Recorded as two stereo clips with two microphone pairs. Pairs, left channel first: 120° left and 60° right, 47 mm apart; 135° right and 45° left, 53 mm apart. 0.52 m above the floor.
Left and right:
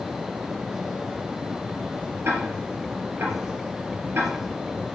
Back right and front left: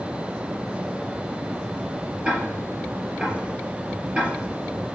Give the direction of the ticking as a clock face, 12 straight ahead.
1 o'clock.